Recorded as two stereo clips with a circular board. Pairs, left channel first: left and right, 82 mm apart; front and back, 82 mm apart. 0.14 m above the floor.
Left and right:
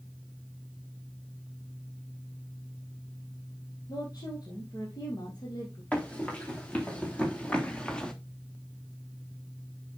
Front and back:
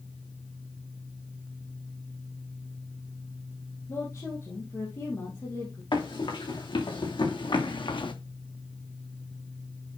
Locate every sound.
3.9 s a woman speaking: 55° left, 3.5 m
5.9 s running footsteps: 15° left, 5 m; by 8.1 s 10° left, 1.4 m